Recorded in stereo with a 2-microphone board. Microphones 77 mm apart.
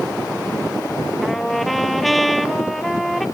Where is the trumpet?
Centre (ahead or behind).